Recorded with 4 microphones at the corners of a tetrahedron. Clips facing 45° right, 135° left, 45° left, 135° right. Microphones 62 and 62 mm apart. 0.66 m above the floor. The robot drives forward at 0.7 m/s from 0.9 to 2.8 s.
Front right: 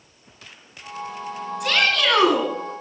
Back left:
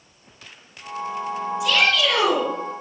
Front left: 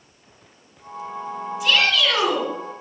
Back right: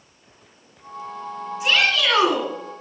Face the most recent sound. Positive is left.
turn(degrees=-85)